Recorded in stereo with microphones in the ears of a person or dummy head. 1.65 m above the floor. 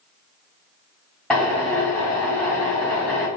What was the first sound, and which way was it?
A drill, 5° left (ahead or behind).